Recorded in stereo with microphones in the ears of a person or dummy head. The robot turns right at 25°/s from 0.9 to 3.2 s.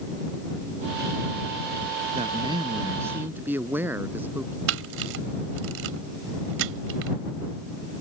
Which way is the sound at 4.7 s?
80° right.